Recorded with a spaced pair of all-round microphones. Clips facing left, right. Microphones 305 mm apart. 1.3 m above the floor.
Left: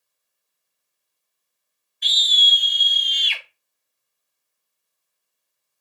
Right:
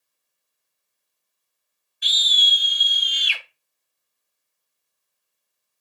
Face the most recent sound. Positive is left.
turn(degrees=-10)  # may be behind; listen again after turning